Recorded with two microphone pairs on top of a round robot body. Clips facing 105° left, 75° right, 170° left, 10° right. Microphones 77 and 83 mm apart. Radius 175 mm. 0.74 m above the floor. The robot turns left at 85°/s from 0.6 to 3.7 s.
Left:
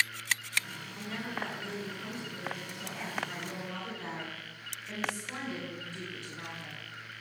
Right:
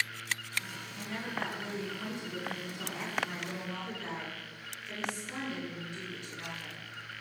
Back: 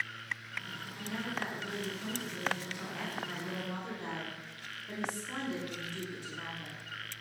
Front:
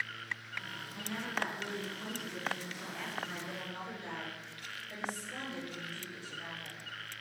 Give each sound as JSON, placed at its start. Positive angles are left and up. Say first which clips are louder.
{"t": 0.9, "sound": "a woman speaking", "louder": "even, even", "azimuth_deg": 35, "distance_m": 9.0}